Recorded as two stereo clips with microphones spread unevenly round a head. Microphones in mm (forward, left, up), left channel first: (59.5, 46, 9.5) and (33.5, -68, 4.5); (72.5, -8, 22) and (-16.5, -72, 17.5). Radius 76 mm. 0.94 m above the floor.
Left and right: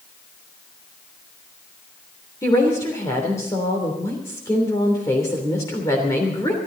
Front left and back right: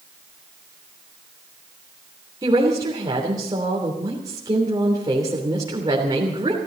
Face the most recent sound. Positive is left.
turn(degrees=150)